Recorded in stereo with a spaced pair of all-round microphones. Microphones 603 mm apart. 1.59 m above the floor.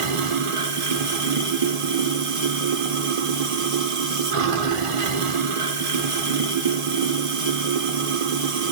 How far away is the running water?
About 0.8 m.